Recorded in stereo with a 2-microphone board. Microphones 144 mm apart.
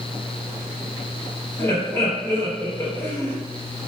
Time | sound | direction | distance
1.6 | laughter | 15° left (ahead or behind) | 0.9 m